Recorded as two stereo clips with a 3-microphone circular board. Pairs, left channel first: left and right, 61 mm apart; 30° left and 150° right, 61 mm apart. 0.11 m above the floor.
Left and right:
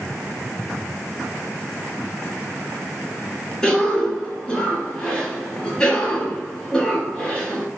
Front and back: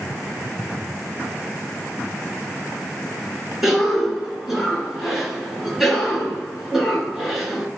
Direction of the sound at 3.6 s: 130° left.